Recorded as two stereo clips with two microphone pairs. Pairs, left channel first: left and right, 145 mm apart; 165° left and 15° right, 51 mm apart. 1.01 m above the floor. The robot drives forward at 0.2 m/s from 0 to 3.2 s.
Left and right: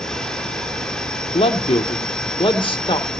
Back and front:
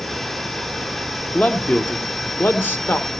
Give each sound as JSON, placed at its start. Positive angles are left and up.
{"t": 1.3, "sound": "a man speaking", "azimuth_deg": 115, "distance_m": 1.0}